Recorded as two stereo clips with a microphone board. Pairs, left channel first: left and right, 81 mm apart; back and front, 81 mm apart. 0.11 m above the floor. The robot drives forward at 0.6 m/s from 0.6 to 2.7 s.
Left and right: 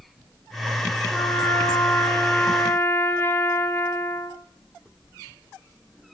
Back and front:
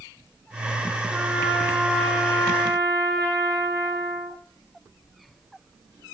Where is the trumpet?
65° left, 1.9 m; by 4.4 s 120° left, 1.9 m.